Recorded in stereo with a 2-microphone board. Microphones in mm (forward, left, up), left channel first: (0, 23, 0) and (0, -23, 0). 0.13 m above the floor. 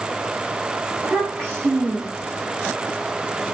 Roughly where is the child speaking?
Right.